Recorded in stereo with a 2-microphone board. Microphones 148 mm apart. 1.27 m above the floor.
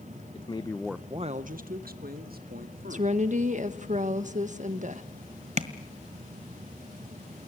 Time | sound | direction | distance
0.3 | a man speaking | 40° left (ahead or behind) | 1.0 m
2.9 | a woman speaking | 55° right (ahead or behind) | 1.5 m
5.6 | tapping | 50° right (ahead or behind) | 1.5 m